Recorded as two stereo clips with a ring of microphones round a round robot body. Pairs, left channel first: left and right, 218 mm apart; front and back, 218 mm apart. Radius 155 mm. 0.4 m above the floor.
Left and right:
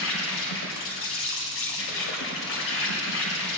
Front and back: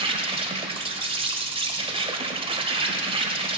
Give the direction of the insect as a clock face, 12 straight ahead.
8 o'clock.